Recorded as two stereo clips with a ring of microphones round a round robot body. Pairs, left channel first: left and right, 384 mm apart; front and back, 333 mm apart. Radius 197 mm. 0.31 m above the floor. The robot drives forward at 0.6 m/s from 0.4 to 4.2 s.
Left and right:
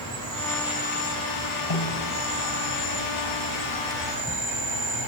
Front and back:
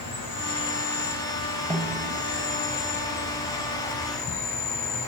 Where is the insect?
45° right, 4 m; by 5.1 s 80° right, 3 m.